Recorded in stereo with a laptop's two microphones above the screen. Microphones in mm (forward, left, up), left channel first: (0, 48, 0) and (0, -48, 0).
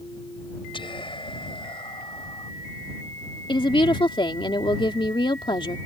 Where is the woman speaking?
60° left (ahead or behind).